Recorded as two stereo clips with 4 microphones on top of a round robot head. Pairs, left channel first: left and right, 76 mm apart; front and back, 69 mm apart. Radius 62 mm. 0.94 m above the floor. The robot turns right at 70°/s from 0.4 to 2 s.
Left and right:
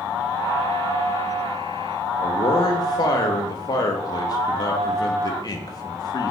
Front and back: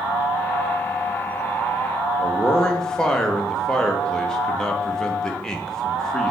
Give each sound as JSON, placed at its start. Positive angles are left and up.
{"t": 2.2, "sound": "a man speaking", "azimuth_deg": 80, "distance_m": 0.5}